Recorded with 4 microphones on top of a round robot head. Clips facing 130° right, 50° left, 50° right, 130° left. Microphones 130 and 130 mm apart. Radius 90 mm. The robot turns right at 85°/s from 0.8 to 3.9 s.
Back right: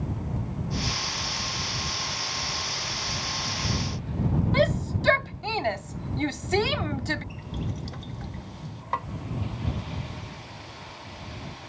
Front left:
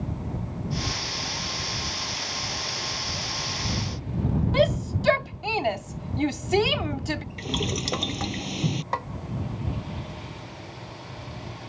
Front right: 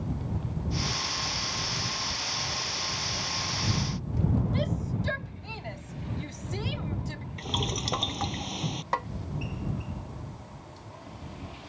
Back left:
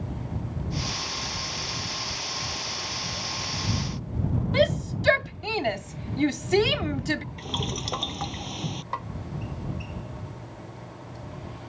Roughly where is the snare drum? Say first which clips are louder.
Front left 1 dB, front right 5 dB; ahead.